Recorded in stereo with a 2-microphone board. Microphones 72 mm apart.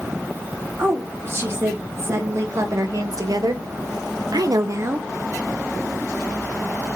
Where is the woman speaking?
35° right (ahead or behind), 1.9 m; by 5.1 s 30° right (ahead or behind), 0.6 m.